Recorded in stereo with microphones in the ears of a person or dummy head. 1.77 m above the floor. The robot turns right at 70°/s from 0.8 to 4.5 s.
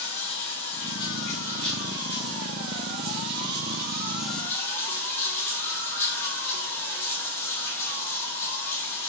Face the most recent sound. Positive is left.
turn(degrees=15)